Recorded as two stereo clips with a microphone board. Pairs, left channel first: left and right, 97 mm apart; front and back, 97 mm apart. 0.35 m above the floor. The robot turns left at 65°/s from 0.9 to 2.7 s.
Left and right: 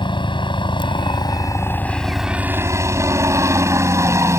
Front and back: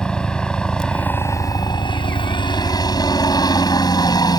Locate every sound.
0.0 s a helicopter: 80° left; by 4.4 s 35° right